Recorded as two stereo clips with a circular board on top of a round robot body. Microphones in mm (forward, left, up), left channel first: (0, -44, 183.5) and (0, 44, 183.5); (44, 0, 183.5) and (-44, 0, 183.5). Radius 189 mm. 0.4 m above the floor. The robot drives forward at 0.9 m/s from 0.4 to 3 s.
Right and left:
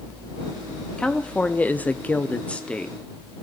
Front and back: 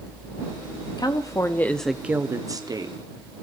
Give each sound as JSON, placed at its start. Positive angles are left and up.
{"t": 1.0, "sound": "a woman speaking", "azimuth_deg": -15, "distance_m": 1.2}